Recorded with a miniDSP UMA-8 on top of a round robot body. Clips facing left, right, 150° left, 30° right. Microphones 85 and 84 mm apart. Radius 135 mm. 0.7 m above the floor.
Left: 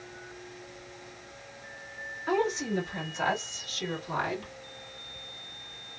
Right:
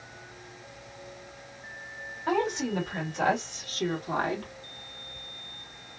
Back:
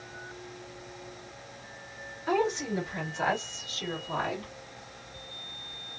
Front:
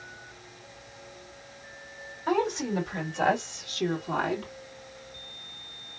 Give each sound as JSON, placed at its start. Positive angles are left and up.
{"t": 2.3, "sound": "a woman speaking", "azimuth_deg": -60, "distance_m": 2.5}